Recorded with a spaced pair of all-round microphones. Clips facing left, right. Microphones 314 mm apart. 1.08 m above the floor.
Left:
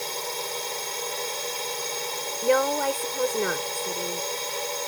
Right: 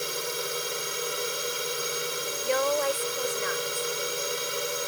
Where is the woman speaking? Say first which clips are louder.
Left 4 dB; 70° left (ahead or behind).